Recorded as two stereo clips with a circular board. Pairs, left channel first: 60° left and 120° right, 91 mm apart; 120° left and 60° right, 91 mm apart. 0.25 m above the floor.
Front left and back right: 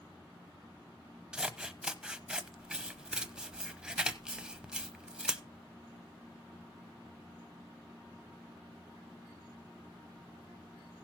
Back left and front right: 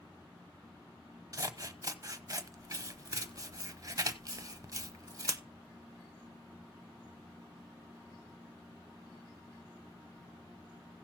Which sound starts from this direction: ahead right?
Scissors, at 1.3 s.